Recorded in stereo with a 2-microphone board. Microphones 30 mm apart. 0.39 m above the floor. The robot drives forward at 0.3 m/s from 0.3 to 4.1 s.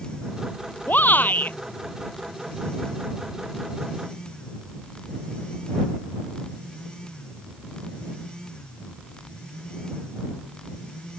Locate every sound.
0.9 s a shout: 75° left (ahead or behind)